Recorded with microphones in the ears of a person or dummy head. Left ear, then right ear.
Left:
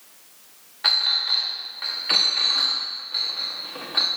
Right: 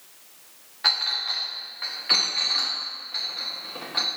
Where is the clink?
10° left (ahead or behind), 1.2 m.